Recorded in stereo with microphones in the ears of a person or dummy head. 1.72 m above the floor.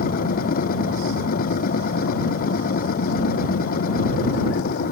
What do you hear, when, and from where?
0.0 s a machine running: 45° left (ahead or behind)